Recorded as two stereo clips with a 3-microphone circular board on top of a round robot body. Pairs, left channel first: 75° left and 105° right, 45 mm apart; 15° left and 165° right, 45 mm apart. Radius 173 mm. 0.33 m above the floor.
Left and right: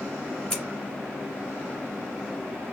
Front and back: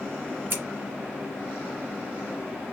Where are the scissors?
155° left, 2.5 m.